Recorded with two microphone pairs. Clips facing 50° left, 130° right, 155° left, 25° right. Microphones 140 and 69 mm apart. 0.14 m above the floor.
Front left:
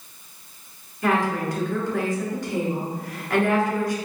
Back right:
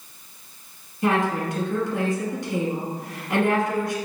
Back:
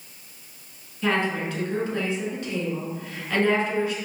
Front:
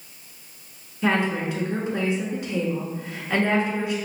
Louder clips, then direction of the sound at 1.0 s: Even, front 2 dB; 80° right.